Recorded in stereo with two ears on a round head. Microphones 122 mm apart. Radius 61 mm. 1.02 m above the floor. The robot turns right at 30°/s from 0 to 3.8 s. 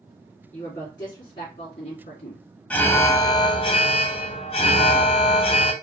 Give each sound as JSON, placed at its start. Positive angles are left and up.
{"t": 0.5, "sound": "a woman speaking", "azimuth_deg": 10, "distance_m": 2.5}
{"t": 2.7, "sound": "an alarm", "azimuth_deg": 15, "distance_m": 0.7}